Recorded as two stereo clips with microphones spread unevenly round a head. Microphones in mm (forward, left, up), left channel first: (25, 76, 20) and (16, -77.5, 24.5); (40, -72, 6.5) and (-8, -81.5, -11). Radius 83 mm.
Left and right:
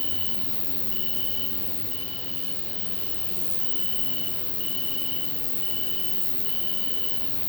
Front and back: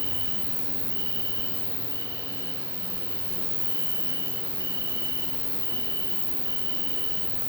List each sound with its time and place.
0.0 s an insect: 5° left, 5.5 m